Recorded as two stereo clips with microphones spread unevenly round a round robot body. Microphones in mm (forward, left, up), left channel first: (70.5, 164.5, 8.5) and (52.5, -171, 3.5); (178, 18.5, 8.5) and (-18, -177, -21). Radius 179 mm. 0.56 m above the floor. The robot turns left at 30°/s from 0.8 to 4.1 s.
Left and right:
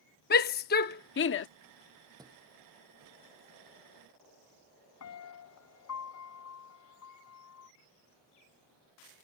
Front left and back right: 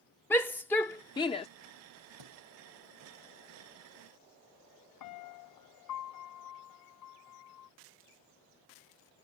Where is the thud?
170° right; by 2.4 s straight behind.